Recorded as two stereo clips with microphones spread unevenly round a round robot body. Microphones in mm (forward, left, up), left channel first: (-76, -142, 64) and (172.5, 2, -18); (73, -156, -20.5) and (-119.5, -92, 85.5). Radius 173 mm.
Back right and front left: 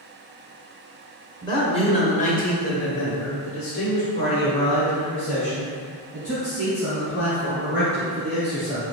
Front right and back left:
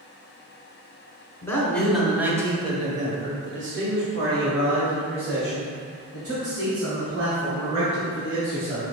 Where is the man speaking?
65° right, 1.4 m; by 8.8 s 145° left, 3.5 m.